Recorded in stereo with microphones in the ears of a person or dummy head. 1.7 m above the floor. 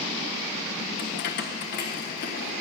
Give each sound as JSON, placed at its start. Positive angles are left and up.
{"t": 1.0, "sound": "keys jangling", "side_deg": 40, "distance_m": 0.9}